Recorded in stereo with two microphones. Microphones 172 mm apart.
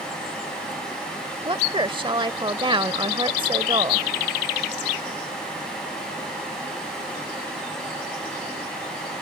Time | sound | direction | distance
1.4 | a woman speaking | 30° right (ahead or behind) | ?